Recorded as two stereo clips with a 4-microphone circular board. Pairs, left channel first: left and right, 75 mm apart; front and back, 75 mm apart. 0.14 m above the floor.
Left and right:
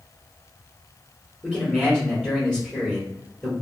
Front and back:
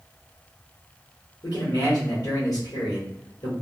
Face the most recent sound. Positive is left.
turn(degrees=5)